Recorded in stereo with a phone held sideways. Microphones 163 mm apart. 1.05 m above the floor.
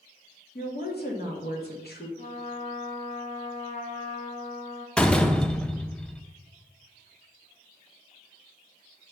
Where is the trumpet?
45° left (ahead or behind), 1.0 m.